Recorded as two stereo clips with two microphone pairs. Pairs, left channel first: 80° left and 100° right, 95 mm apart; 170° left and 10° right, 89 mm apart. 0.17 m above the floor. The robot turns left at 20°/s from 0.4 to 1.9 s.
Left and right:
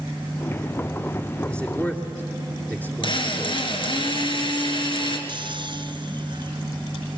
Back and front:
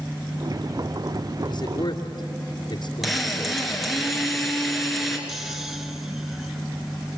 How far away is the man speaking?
About 2.5 m.